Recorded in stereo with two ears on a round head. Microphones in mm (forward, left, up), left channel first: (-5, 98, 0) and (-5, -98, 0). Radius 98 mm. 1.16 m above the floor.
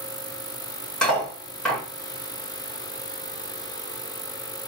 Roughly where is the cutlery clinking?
Centre.